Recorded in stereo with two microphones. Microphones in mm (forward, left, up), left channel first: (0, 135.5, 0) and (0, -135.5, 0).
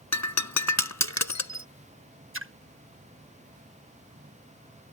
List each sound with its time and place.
0.1 s breaking glass: 75° left (ahead or behind)
2.3 s a splash: 50° right (ahead or behind)